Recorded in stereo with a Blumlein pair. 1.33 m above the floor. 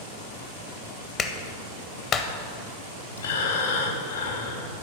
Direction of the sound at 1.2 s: 30° left.